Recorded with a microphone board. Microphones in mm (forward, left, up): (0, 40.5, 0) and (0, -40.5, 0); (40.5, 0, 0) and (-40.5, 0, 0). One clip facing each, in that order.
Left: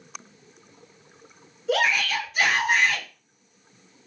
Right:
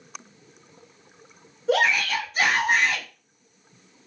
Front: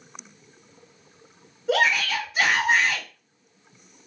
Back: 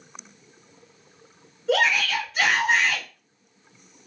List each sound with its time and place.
1.7 s a shout: 65° right, 1.1 m